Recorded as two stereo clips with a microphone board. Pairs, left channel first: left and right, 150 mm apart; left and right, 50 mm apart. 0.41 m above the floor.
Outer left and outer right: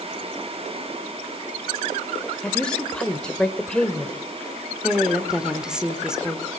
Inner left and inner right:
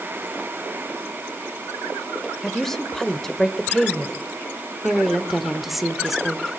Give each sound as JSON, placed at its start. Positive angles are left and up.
{"t": 2.4, "sound": "a woman speaking", "side_deg": 5, "distance_m": 1.1}
{"t": 4.8, "sound": "a woman speaking", "side_deg": -5, "distance_m": 1.1}